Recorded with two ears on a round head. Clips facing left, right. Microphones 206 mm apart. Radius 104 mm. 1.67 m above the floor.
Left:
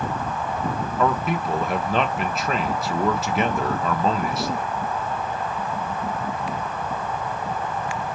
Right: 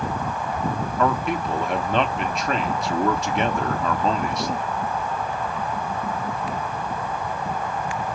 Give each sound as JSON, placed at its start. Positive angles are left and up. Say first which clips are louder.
{"t": 1.0, "sound": "a man speaking", "louder": "even", "side_deg": 0, "distance_m": 0.6}